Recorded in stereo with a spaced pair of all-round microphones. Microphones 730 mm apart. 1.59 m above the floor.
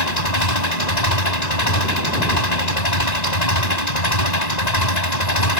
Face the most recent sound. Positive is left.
turn(degrees=60)  # may be behind; listen again after turning